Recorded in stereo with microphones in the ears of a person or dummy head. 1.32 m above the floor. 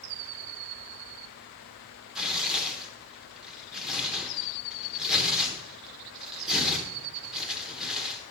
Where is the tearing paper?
5° right (ahead or behind), 1.0 m.